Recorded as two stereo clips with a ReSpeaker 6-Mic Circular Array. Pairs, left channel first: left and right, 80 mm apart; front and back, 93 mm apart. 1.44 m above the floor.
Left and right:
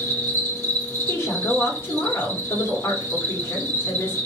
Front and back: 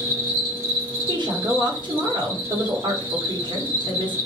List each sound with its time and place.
0.0 s an insect: 125° right, 1.5 m
1.1 s a woman speaking: 150° left, 0.9 m